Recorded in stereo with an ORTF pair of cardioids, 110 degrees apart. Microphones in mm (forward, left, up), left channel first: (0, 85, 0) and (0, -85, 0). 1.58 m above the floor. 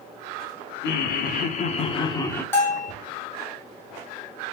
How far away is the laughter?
About 0.9 m.